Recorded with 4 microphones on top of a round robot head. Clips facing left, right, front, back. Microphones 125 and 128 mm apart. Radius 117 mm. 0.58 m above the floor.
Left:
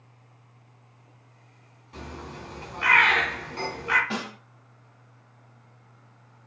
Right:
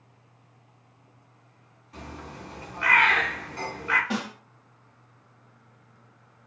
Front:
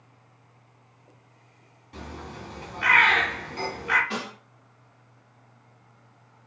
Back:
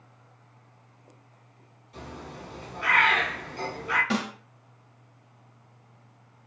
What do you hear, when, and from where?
1.9 s a bird: 30° left, 0.9 m
4.1 s a snare drum: 170° right, 0.5 m